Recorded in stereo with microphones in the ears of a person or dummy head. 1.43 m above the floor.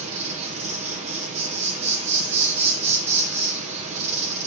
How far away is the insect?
About 0.8 m.